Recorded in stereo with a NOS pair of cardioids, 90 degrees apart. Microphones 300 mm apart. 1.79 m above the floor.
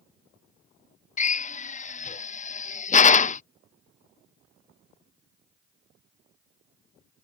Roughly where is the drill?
Ahead left.